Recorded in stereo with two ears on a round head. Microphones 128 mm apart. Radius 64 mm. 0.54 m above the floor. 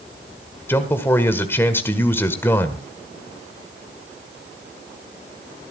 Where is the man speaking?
15° left (ahead or behind), 1.7 m.